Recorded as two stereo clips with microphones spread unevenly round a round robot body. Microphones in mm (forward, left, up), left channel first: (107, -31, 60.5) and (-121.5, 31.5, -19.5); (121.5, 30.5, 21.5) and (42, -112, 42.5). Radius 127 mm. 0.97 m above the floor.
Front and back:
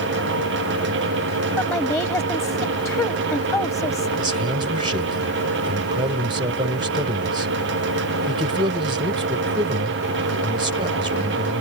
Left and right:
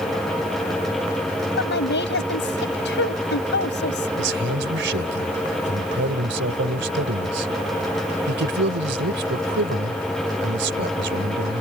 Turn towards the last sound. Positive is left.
turn(degrees=-125)